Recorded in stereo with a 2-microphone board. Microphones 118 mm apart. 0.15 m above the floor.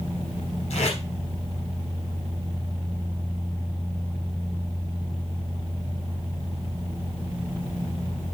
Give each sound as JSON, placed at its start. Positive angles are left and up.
{"t": 0.7, "sound": "tape being pulled", "side_deg": 70, "distance_m": 5.0}